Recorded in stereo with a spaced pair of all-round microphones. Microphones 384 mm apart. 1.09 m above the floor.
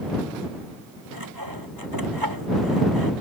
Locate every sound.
1.1 s sawing: 60° right (ahead or behind)